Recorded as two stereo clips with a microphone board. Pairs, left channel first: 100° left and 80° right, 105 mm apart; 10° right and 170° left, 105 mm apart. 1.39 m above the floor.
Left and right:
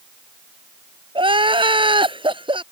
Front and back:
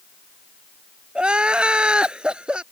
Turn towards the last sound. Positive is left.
turn(degrees=-110)